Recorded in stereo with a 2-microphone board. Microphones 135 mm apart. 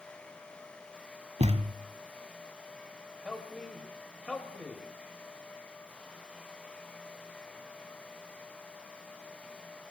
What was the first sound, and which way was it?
A thud, 50° right (ahead or behind).